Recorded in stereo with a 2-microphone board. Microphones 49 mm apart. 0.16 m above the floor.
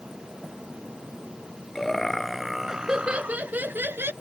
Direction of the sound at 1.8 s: 10° left (ahead or behind).